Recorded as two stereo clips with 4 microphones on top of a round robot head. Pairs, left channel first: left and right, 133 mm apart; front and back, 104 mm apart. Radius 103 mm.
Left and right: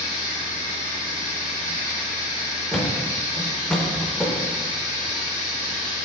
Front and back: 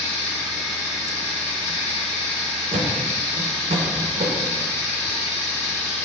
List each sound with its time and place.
0.0 s running water: 65° left, 1.9 m
2.7 s a thud: 175° left, 0.6 m